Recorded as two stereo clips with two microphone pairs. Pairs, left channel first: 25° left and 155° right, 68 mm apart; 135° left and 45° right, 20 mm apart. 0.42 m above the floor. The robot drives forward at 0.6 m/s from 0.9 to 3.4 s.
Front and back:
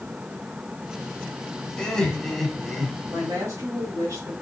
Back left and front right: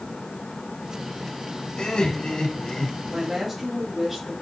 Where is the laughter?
100° left, 2 m; by 3.2 s 125° left, 2.5 m.